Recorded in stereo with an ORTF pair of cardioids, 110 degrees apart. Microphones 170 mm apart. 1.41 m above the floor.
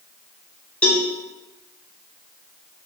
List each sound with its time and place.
0.8 s a cowbell: 5° left, 1.0 m